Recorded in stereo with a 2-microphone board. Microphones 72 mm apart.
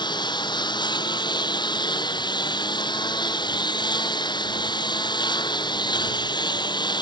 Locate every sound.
0.0 s a lawn mower: 75° left (ahead or behind)